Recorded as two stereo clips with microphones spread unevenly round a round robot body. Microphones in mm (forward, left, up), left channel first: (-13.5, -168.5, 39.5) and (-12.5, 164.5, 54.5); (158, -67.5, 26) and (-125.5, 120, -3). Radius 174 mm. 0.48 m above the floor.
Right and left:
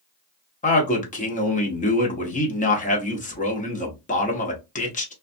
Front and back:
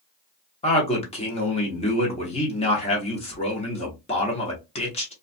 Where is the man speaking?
90° right, 0.8 m.